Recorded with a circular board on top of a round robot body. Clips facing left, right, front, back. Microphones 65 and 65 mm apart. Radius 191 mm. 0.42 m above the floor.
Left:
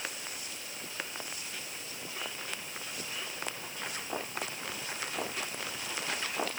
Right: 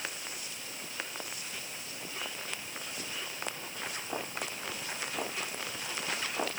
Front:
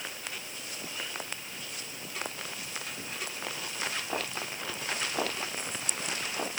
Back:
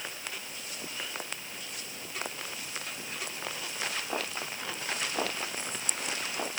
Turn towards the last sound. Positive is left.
No sound to turn to.